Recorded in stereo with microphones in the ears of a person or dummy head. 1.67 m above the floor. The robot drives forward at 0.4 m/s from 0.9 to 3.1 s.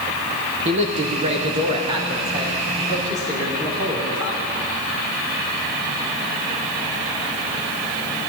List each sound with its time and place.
0.7 s a man speaking: 25° right (ahead or behind), 0.8 m; by 4.4 s 15° right (ahead or behind), 1.5 m